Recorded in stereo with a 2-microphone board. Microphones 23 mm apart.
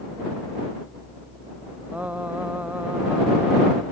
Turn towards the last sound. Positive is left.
turn(degrees=-80)